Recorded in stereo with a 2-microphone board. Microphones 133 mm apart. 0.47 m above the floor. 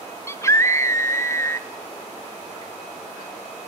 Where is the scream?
20° left (ahead or behind), 0.7 m.